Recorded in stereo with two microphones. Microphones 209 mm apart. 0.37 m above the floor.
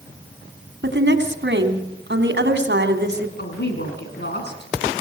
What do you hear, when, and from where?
0.8 s a woman speaking: 60° right (ahead or behind), 3 m
3.4 s a woman speaking: 55° left (ahead or behind), 4.5 m